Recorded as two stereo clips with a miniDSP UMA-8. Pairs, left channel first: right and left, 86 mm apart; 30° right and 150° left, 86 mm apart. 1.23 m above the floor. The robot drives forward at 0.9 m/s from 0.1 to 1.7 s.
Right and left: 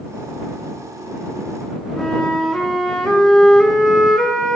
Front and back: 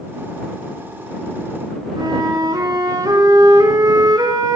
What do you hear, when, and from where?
2.0 s a flute: 170° right, 4 m